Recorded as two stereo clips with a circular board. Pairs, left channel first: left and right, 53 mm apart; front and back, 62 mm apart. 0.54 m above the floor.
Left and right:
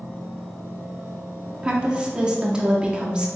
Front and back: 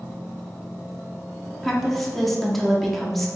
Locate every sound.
1.6 s a woman speaking: 80° right, 0.6 m